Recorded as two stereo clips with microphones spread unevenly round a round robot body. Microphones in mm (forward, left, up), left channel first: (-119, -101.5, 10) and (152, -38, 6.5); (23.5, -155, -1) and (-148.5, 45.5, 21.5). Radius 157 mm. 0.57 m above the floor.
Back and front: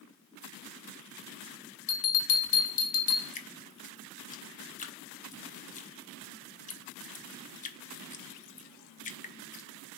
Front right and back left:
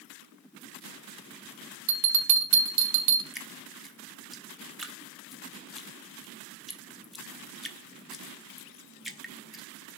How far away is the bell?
About 1.1 m.